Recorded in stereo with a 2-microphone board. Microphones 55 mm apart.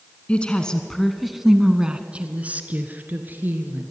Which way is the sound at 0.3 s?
20° left (ahead or behind).